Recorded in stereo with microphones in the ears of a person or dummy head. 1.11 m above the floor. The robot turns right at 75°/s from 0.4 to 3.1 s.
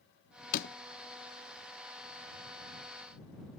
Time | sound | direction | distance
0.5 | a door slam | 45° left (ahead or behind) | ?